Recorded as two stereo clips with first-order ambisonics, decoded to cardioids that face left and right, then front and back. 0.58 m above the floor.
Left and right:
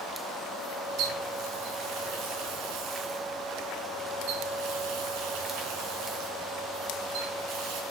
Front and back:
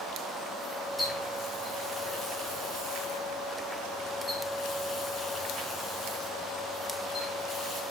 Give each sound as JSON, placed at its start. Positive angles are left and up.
{"t": 1.0, "sound": "a running tap", "azimuth_deg": -85, "distance_m": 4.5}